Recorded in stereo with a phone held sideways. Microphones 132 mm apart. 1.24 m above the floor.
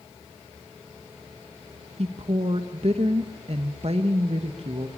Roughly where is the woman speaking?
Right.